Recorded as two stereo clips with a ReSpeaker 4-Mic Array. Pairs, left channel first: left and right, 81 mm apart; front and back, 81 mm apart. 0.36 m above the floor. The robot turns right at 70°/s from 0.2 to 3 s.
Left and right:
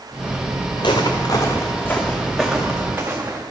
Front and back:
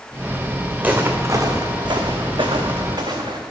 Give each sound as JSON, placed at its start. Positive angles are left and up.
{"t": 0.8, "sound": "footsteps", "azimuth_deg": 105, "distance_m": 1.5}